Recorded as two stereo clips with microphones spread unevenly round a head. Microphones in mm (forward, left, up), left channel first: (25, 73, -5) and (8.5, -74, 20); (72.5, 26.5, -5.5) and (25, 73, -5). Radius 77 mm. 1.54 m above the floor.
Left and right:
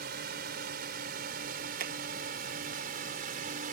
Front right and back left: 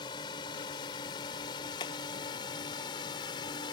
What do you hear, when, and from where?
0.0 s a drone: 75° right; by 3.7 s 65° right
1.8 s hammering: 75° right